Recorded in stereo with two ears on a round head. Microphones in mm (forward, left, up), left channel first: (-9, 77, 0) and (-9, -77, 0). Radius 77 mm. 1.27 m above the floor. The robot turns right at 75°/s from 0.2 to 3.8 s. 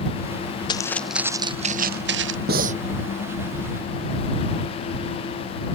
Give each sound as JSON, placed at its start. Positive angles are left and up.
{"t": 0.7, "sound": "footsteps", "side_deg": 30}
{"t": 2.5, "sound": "breathing", "side_deg": -60}